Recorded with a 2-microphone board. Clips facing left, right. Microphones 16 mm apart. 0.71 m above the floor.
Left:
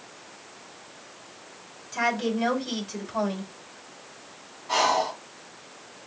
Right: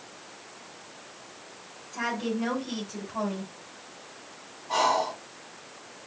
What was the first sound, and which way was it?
A woman speaking, 60° left (ahead or behind).